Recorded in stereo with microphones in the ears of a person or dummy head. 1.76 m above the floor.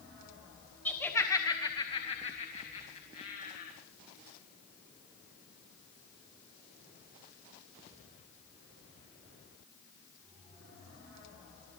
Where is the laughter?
5° left (ahead or behind), 1.6 m; by 3.7 s 40° left (ahead or behind), 3 m.